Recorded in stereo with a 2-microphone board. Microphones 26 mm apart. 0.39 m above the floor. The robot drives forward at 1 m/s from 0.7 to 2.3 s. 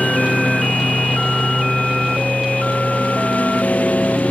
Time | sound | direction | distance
0.0 | a lawn mower | 85° left | ?